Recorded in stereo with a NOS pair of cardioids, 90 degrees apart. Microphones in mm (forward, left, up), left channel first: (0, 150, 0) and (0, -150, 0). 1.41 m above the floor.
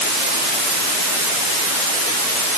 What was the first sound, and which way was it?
Only background noise.